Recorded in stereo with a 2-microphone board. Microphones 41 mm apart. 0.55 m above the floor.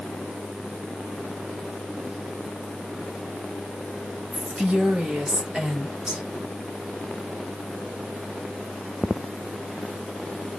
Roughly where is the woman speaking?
Right.